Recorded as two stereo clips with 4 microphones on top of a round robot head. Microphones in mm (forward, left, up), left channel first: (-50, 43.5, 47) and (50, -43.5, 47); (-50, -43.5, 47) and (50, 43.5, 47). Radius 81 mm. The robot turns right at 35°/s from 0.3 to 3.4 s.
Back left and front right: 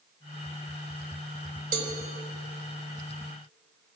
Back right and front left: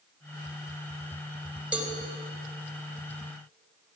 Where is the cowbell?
40° right, 3 m; by 1.9 s 35° right, 3 m.